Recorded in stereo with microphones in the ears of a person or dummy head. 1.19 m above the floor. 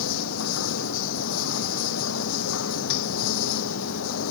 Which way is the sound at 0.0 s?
80° left.